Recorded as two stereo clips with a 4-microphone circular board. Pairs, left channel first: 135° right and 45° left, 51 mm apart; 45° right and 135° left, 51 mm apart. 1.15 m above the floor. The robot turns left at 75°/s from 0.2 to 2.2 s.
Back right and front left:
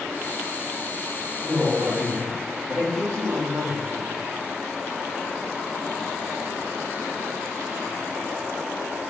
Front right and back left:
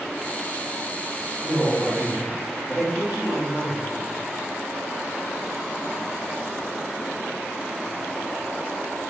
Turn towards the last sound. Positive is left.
turn(degrees=60)